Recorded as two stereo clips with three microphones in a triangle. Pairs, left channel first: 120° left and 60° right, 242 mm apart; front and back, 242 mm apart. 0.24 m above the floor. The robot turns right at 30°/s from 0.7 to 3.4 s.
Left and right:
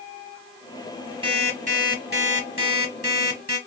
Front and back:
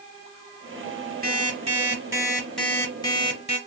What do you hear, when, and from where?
1.2 s an alarm clock: 130° right, 2.5 m; by 3.6 s 65° right, 2.5 m